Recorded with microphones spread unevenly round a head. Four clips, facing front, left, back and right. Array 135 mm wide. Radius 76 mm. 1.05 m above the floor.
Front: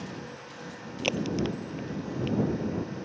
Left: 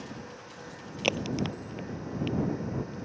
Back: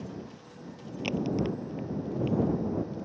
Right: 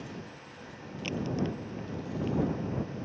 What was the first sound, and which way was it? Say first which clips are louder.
A crack: left 2 dB, even; 60° left.